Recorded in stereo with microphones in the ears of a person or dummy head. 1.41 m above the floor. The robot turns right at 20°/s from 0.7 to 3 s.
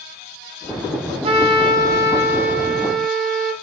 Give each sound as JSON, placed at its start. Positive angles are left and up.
{"t": 1.2, "sound": "a trumpet", "azimuth_deg": -35, "distance_m": 2.0}